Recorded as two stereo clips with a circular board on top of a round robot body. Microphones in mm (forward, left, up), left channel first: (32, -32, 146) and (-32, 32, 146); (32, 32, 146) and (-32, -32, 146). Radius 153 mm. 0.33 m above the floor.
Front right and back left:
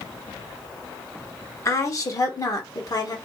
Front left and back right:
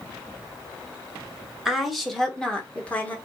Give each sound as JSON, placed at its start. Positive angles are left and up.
{"t": 1.6, "sound": "a woman speaking", "azimuth_deg": -55, "distance_m": 1.4}